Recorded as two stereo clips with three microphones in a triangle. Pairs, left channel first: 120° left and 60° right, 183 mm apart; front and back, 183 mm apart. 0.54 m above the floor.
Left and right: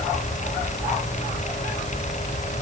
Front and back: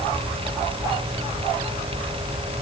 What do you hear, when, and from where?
Only background noise.